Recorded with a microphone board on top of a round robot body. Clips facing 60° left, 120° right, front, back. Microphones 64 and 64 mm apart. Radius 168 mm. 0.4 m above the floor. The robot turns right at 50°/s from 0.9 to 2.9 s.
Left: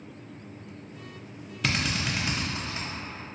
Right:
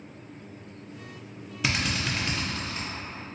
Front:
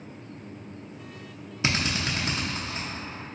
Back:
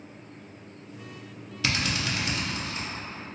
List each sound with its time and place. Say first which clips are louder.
1.6 s a drill: even, front 1 dB; 40° right, 1.0 m; by 2.9 s 20° left, 1.0 m